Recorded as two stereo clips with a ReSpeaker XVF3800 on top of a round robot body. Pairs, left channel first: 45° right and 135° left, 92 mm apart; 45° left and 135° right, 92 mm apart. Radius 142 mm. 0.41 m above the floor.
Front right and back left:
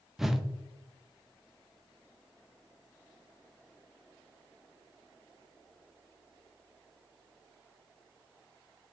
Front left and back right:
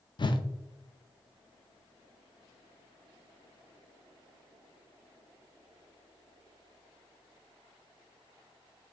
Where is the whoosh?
50° left, 0.5 m.